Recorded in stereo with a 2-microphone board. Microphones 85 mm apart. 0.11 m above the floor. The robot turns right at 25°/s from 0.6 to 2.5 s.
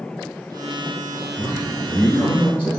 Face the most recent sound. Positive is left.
turn(degrees=-20)  # may be behind; listen again after turning